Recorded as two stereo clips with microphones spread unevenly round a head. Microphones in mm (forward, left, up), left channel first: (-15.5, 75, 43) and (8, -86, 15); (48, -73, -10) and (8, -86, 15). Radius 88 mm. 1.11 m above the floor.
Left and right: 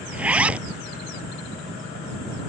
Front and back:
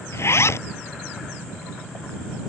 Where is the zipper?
Straight ahead.